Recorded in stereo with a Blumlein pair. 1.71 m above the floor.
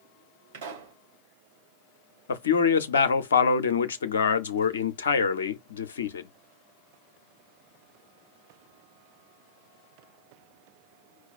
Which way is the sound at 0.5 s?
55° right.